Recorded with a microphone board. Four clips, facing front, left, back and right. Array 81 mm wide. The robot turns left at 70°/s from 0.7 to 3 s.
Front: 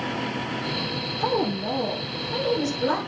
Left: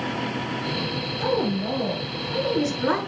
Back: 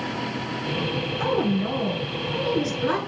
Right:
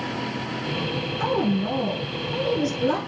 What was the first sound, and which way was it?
A woman speaking, 130° right.